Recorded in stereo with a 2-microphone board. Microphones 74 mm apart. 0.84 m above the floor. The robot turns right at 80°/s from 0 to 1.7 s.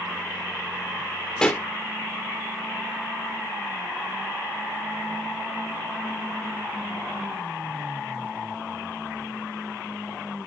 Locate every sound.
1.4 s a pop: 10° left (ahead or behind); by 1.6 s 30° left (ahead or behind)